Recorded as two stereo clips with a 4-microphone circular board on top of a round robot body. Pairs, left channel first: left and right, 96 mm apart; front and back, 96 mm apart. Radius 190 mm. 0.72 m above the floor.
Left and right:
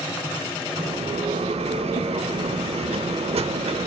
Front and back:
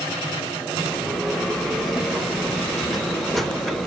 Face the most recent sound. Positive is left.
turn(degrees=-90)